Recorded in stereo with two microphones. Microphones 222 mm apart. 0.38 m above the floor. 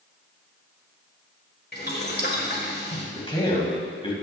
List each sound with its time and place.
1.7 s boiling: 45° left (ahead or behind), 1.6 m
3.1 s a man speaking: 25° left (ahead or behind), 2.5 m